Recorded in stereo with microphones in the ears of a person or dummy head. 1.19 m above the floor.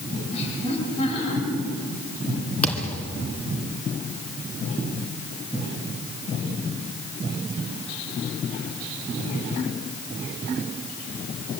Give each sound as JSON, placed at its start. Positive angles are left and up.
{"t": 0.3, "sound": "laughter", "side_deg": 35, "distance_m": 7.0}
{"t": 2.6, "sound": "a thud", "side_deg": 5, "distance_m": 3.0}